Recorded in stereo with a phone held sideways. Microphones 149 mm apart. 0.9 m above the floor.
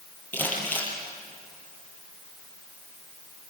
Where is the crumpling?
10° left (ahead or behind), 7 m.